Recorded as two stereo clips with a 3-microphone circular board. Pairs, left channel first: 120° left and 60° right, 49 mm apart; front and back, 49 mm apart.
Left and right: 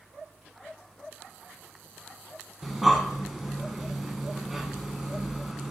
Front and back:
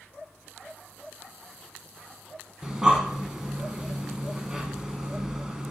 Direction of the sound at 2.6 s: 135° right.